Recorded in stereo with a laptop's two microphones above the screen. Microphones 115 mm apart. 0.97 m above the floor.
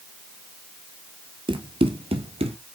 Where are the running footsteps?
45° right (ahead or behind), 1.3 m; by 2.6 s 60° right (ahead or behind), 1.8 m.